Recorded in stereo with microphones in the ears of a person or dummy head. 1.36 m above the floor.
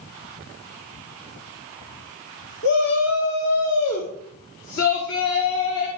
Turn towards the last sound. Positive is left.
turn(degrees=70)  # may be behind; listen again after turning